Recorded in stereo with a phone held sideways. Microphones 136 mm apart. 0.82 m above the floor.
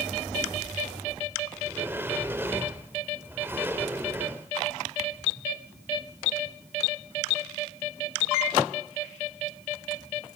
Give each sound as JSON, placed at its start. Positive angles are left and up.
{"t": 1.6, "sound": "a sliding door", "side_deg": -15, "distance_m": 1.0}